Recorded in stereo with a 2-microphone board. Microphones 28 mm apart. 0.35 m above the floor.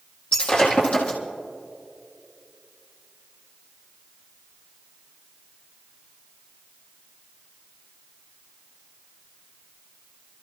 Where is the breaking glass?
35° left (ahead or behind), 3.5 m.